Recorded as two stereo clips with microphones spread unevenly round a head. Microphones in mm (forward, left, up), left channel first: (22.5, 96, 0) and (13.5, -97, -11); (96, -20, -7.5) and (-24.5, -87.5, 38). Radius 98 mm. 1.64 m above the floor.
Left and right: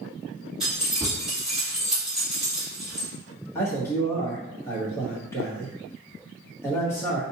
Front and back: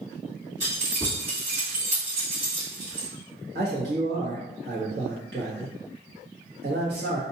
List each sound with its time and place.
0.6 s keys jangling: straight behind, 2.0 m
3.5 s a man speaking: 165° left, 1.0 m